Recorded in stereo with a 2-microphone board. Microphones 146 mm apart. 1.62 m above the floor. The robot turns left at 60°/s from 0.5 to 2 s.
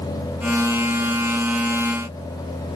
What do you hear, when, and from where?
Only background noise.